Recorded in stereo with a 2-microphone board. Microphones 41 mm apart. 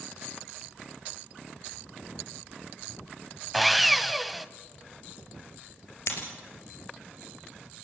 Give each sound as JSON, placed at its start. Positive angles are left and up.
{"t": 3.5, "sound": "sawing", "side_deg": 0, "distance_m": 0.5}
{"t": 6.1, "sound": "breaking glass", "side_deg": 70, "distance_m": 3.0}